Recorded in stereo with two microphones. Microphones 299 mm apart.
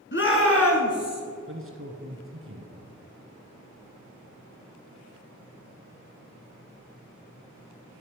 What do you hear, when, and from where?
0.1 s a shout: 40° left (ahead or behind), 1.3 m; by 1.2 s 55° left (ahead or behind), 2 m
1.5 s a man speaking: 45° right (ahead or behind), 1.5 m